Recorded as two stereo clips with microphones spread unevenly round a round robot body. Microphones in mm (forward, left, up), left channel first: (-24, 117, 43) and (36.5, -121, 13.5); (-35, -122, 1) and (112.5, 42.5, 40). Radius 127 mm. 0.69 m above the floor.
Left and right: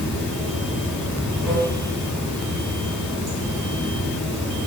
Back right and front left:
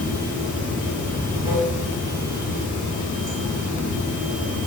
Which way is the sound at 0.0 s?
165° right.